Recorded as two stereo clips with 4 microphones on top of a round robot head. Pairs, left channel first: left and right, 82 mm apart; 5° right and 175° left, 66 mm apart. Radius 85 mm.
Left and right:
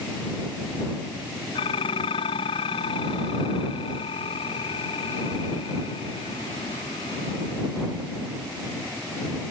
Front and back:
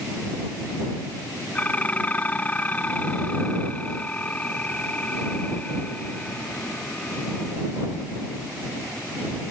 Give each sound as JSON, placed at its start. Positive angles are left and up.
{"t": 1.6, "sound": "dishes clattering", "azimuth_deg": 60}